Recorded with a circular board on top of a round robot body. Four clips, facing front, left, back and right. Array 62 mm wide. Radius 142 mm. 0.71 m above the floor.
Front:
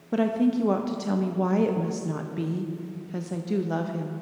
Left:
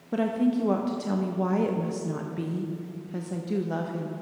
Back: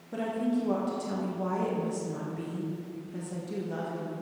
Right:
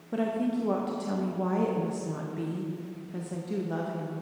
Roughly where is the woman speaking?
Ahead.